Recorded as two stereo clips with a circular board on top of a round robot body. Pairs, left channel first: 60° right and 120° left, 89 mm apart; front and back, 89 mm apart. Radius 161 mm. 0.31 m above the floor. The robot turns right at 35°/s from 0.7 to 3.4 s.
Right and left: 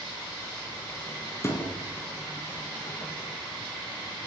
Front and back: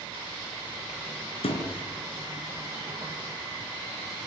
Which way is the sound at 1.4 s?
Straight ahead.